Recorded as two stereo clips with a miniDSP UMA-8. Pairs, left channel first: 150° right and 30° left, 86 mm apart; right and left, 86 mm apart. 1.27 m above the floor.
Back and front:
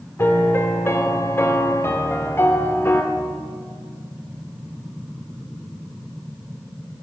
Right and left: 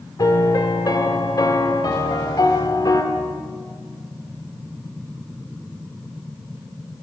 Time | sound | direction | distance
0.2 | a piano | 100° right | 1.2 m